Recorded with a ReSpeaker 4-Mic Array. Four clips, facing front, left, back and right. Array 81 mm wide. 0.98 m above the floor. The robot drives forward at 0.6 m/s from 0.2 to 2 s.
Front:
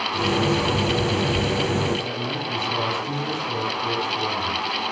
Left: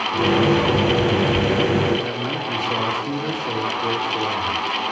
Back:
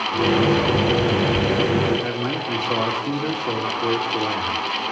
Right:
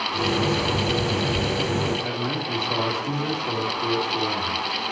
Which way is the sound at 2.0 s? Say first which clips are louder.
Left 2 dB, back 3 dB; 175° left.